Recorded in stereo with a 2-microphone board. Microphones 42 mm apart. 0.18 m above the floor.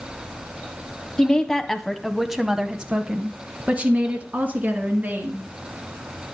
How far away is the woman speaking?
About 1.2 m.